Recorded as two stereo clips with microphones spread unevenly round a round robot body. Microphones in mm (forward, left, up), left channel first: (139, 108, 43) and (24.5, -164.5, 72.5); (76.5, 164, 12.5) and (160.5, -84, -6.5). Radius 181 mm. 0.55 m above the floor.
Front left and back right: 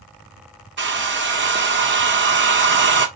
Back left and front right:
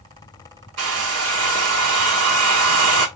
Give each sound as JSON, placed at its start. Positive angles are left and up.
{"t": 0.8, "sound": "a hair dryer", "azimuth_deg": -60, "distance_m": 1.0}